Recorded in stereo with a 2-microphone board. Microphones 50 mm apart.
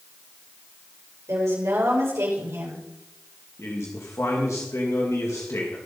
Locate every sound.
1.3 s a woman speaking: 80° right, 6 m
3.6 s a man speaking: 85° left, 2 m